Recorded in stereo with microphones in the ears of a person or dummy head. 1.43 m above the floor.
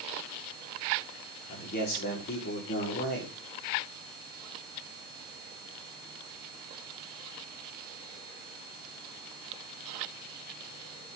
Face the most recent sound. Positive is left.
turn(degrees=50)  # may be behind; listen again after turning